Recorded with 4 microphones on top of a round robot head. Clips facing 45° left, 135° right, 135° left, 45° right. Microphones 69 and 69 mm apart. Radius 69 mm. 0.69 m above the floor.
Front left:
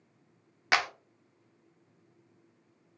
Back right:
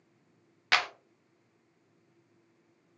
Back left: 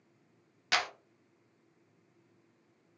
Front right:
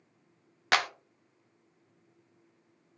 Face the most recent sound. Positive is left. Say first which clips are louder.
# front left 1 dB, front right 5 dB
turn(degrees=-25)